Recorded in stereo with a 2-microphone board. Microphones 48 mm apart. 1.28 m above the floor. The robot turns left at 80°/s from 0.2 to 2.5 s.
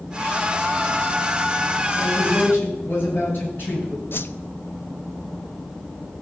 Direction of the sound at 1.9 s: 90° left.